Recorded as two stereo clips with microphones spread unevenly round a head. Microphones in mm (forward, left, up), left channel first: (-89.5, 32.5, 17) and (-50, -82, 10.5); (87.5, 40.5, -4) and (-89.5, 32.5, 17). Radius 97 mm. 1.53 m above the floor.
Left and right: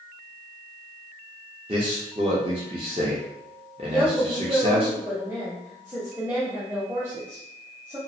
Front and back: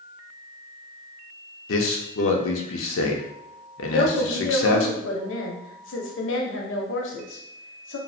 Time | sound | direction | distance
1.7 | a man speaking | 10° right | 0.5 m
3.9 | a woman speaking | 10° left | 0.7 m